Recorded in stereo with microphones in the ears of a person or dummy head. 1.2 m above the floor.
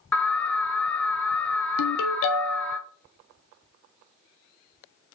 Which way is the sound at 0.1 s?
10° left (ahead or behind).